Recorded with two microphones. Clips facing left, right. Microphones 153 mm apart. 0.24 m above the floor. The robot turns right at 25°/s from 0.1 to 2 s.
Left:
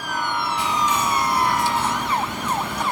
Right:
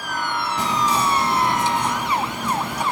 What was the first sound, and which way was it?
Whispering, 50° right.